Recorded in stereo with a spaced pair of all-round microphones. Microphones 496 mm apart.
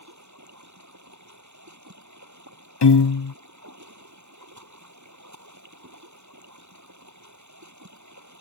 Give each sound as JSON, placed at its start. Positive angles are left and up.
{"t": 0.0, "sound": "running water", "side_deg": -35}
{"t": 2.8, "sound": "a piano", "side_deg": 60}